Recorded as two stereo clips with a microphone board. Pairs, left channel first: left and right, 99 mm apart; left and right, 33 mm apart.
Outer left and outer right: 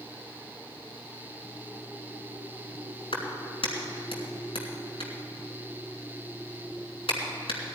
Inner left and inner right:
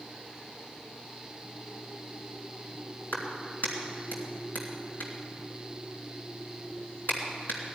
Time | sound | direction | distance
3.1 | a clap | 75° left (ahead or behind) | 3 m